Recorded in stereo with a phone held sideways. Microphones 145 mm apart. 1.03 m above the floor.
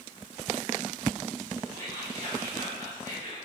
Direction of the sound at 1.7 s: 65° right (ahead or behind).